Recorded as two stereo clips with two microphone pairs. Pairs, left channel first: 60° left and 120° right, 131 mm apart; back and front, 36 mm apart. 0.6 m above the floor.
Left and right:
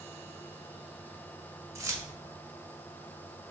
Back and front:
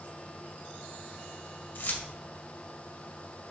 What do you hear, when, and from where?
1.8 s keys jangling: 175° left, 2.0 m